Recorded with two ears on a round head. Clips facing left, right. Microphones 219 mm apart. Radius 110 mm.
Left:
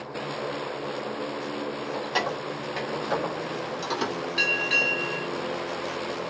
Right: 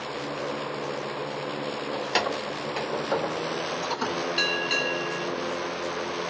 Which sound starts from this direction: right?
Keys jangling, at 1.9 s.